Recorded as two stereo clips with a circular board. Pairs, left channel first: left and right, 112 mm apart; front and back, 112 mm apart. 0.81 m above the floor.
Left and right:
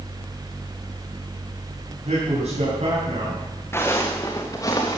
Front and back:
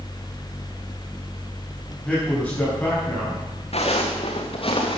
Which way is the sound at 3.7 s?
20° left.